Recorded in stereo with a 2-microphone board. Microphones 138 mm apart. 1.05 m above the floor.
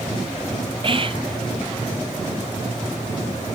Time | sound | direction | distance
0.8 | whispering | 40° right (ahead or behind) | 0.7 m